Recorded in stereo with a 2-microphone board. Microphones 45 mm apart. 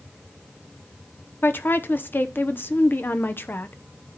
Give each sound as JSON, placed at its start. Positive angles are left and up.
{"t": 1.4, "sound": "a woman speaking", "side_deg": 50, "distance_m": 0.8}